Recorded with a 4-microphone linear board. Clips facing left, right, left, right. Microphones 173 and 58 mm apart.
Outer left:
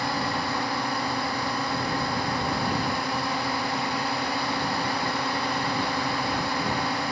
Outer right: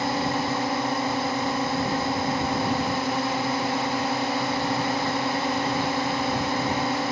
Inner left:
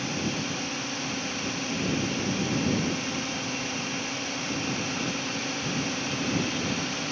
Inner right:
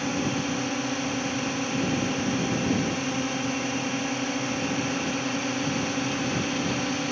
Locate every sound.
0.0 s a drone: 20° right (ahead or behind)